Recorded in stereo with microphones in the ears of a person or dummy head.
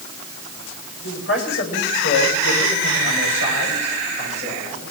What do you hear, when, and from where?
1.0 s a man speaking: 75° left (ahead or behind), 7 m; by 4.8 s 55° left (ahead or behind), 11 m